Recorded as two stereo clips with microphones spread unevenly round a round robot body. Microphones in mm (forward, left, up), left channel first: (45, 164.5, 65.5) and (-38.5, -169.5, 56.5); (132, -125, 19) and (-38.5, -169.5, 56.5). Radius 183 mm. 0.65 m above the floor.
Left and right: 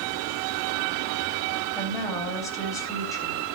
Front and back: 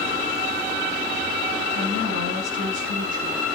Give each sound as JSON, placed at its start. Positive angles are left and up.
{"t": 1.8, "sound": "a woman speaking", "azimuth_deg": 155, "distance_m": 3.0}